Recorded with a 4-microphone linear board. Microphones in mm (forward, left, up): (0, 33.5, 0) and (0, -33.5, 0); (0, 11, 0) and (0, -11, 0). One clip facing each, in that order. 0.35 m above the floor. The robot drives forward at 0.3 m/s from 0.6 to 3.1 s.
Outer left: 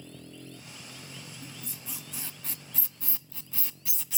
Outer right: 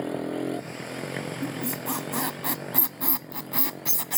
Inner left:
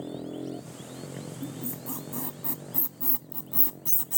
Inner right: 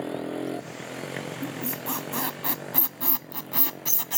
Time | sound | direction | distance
0.0 | a motorcycle | 70° right (ahead or behind) | ?
1.4 | a squeak | 75° right (ahead or behind) | ?